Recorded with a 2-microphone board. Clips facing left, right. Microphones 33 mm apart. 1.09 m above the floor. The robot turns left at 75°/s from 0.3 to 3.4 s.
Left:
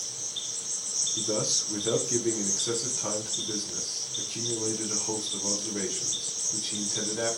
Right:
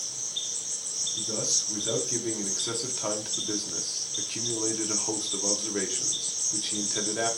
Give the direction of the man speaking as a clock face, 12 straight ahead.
9 o'clock.